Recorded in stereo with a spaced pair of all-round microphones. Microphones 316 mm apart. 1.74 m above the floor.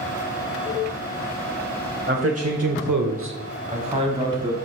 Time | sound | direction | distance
2.1 | a man speaking | 35° right (ahead or behind) | 1.0 m